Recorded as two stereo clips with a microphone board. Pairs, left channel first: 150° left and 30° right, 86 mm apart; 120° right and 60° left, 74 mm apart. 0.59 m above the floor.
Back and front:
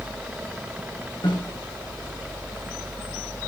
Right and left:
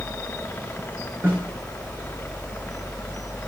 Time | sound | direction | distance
1.2 | a snare drum | 120° left | 7.5 m